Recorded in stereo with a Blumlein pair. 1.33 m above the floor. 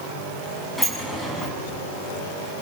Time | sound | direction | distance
0.8 | a sliding door | 5° left | 6.5 m